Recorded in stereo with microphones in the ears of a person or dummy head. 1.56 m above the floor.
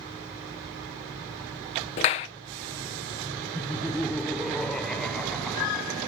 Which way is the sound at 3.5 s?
5° left (ahead or behind).